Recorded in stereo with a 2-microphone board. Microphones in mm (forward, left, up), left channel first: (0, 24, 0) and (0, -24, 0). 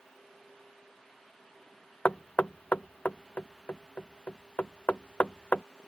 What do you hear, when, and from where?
2.0 s knocking: 35° left (ahead or behind)